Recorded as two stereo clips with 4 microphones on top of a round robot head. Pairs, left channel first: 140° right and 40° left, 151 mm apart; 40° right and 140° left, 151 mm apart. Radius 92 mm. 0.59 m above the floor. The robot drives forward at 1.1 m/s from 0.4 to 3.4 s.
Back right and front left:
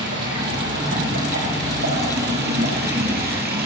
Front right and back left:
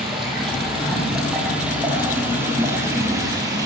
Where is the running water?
50° left, 8 m; by 3.7 s 70° left, 6.5 m.